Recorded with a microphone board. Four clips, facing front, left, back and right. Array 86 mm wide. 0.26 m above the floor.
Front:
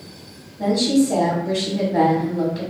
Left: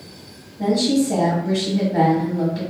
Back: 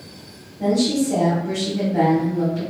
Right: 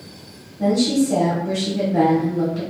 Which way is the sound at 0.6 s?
35° left.